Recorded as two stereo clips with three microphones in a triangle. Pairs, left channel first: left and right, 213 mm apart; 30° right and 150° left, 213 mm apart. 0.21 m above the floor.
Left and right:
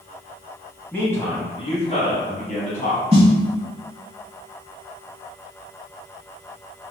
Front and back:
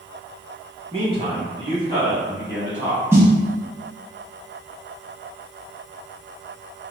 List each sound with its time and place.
0.9 s a man speaking: 160° left, 1.1 m; by 3.0 s 70° left, 1.5 m
3.1 s a snare drum: 135° right, 0.7 m